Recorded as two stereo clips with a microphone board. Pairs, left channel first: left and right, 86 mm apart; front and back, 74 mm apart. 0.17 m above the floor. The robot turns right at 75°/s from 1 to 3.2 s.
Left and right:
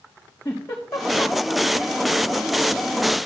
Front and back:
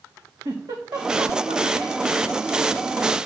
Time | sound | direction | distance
0.5 | a giggle | 150° left | 3.5 m